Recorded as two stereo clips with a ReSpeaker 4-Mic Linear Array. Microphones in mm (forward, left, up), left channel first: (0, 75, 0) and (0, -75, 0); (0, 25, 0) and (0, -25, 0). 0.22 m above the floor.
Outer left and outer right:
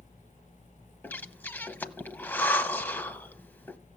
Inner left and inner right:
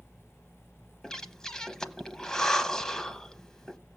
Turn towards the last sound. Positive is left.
turn(degrees=15)  # may be behind; listen again after turning